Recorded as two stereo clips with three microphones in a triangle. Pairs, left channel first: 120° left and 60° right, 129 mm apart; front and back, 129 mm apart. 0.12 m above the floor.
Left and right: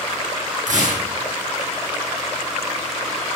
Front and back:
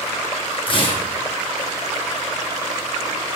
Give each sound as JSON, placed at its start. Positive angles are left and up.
{"t": 0.7, "sound": "tearing paper", "azimuth_deg": -45, "distance_m": 4.0}